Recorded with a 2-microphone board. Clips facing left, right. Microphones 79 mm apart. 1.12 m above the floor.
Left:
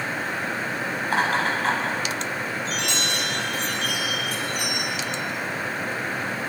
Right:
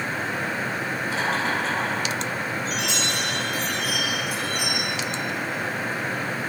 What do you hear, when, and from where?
1.0 s laughter: 55° left (ahead or behind), 7.5 m
2.6 s a chime: 5° right (ahead or behind), 9.5 m